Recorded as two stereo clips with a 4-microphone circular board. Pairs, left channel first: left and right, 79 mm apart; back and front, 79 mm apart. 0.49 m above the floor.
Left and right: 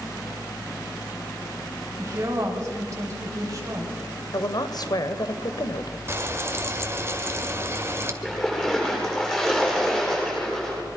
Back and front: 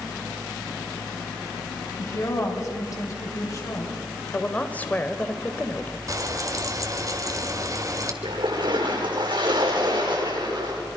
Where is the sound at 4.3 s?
110° left, 1.7 m.